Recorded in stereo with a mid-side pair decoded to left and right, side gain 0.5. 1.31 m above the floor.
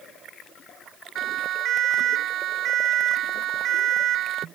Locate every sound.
1.1 s a siren: 65° right